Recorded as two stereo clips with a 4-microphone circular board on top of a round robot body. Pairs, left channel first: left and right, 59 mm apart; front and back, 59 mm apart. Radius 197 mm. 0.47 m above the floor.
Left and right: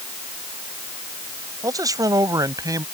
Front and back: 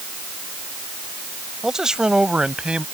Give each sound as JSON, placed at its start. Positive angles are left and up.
{"t": 1.6, "sound": "a man speaking", "azimuth_deg": -95}